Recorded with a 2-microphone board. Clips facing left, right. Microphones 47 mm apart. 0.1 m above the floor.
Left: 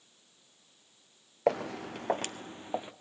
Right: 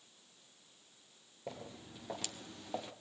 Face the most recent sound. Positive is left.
turn(degrees=20)  # may be behind; listen again after turning